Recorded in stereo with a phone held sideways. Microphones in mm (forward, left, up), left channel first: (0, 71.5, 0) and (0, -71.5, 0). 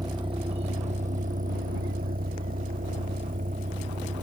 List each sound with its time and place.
0.0 s a vehicle: 30° right (ahead or behind); by 4.2 s 65° right (ahead or behind)